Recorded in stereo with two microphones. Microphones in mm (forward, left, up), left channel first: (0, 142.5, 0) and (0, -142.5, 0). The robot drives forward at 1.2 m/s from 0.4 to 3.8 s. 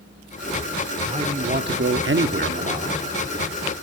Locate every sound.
1.1 s a man speaking: 20° right (ahead or behind), 1.3 m